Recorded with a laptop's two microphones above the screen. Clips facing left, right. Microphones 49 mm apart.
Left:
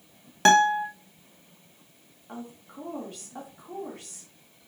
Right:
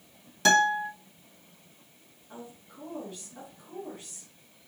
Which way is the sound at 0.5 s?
40° left (ahead or behind).